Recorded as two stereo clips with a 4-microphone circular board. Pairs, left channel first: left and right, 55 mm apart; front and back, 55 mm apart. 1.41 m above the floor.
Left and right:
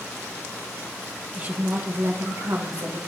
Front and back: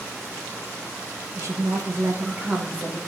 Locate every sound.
1.4 s a woman speaking: 150° right, 1.6 m; by 3.0 s 105° right, 1.7 m